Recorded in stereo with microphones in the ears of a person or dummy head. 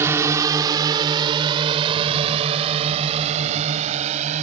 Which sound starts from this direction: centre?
A drone, at 0.0 s.